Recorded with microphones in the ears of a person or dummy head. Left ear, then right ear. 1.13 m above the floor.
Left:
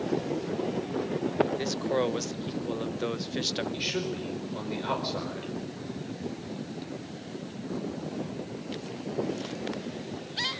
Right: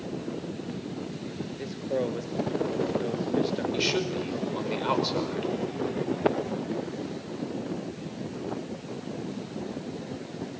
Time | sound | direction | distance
1.6 | a man speaking | 40° left (ahead or behind) | 1.2 m
3.7 | a man speaking | 20° right (ahead or behind) | 5 m